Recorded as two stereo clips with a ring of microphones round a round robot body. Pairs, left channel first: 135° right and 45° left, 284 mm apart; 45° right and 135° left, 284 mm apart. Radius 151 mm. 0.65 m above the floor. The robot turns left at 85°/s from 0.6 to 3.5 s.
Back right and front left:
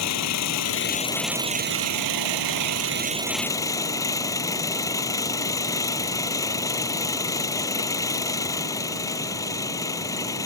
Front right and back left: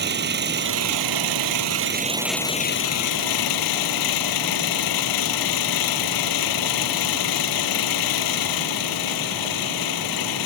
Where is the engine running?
170° right; by 10.5 s 55° right.